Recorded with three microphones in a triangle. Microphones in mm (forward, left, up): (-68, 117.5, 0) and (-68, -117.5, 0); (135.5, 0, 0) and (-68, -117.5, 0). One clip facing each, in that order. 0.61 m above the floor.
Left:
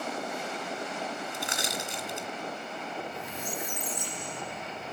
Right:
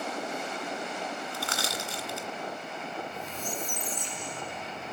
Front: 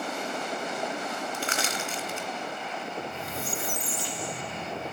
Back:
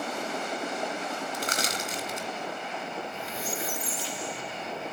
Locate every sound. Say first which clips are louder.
1.3 s crushing: even, even; 160° left, 2 m
3.0 s a squeak: even, front 1 dB; 15° left, 0.8 m